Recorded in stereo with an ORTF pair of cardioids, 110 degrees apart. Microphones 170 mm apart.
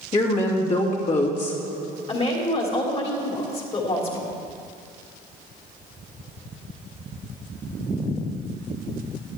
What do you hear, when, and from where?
0.1 s a woman speaking: 45° left, 2.5 m
2.1 s a woman speaking: 35° left, 2.5 m